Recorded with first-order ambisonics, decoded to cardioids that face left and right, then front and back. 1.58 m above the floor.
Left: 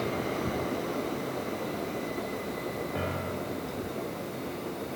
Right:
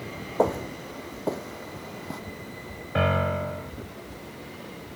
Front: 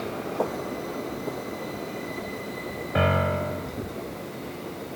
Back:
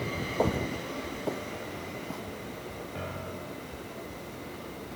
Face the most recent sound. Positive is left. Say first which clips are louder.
# right 8 dB, front 18 dB
turn(degrees=-35)